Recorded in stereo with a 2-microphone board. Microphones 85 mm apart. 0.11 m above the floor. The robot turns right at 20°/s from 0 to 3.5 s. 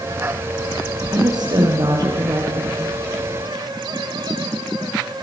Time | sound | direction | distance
1.1 | a woman speaking | 85° right | 2.5 m